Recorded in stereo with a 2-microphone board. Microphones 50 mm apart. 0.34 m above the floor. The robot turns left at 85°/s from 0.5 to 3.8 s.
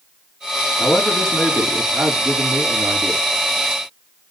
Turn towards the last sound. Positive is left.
turn(degrees=150)